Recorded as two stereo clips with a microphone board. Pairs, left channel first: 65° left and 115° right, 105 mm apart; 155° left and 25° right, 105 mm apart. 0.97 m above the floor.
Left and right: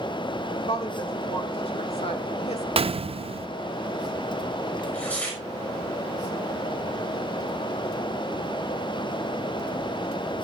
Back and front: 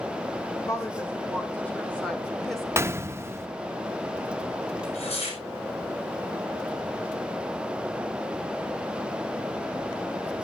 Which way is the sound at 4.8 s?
145° left.